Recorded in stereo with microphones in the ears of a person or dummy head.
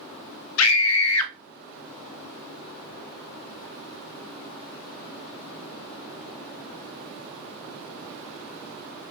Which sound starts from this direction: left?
A scream, at 0.6 s.